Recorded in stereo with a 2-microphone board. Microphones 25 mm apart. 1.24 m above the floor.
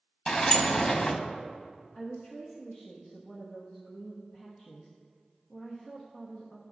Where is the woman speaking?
25° left (ahead or behind), 0.9 m.